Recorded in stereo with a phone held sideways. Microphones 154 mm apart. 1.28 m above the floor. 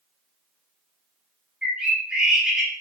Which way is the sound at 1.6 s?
5° right (ahead or behind).